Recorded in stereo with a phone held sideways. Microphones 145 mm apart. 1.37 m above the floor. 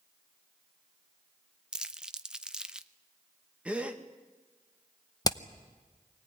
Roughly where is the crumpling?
Centre.